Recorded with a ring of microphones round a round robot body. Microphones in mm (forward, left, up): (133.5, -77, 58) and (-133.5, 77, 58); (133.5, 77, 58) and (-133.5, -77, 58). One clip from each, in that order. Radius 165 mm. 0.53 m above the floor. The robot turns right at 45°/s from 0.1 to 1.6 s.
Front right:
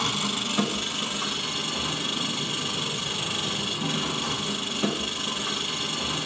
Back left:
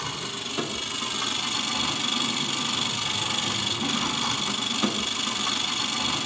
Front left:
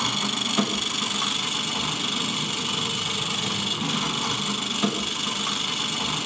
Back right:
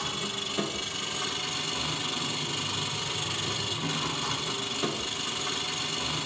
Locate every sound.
0.0 s an engine running: 30° left, 1.2 m; by 6.3 s 100° left, 1.2 m